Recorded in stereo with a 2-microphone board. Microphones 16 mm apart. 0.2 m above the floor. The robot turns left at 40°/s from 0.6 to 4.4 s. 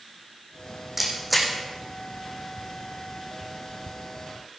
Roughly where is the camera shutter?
Centre.